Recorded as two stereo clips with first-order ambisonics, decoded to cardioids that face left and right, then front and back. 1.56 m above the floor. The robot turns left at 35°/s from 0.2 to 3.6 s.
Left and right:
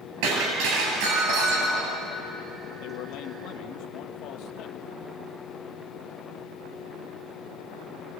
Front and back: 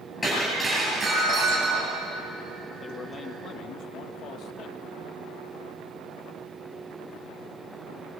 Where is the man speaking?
80° left, 1.6 m; by 4.8 s 50° left, 1.6 m.